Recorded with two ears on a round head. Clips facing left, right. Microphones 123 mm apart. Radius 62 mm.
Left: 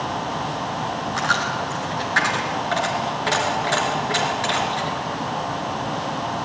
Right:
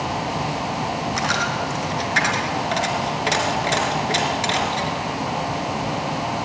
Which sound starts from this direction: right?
A dropped coin, at 1.2 s.